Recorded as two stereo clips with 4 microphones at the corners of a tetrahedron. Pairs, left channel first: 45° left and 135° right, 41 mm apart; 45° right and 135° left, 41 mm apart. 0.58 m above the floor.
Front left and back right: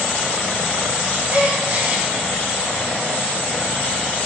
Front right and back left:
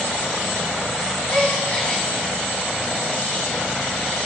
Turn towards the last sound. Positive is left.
turn(degrees=-95)